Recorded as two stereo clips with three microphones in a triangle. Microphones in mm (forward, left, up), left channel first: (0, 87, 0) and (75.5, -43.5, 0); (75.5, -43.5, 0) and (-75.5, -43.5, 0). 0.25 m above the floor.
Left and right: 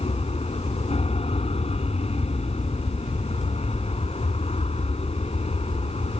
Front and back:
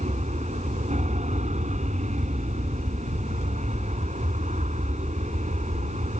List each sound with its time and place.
0.0 s an aircraft: 155° left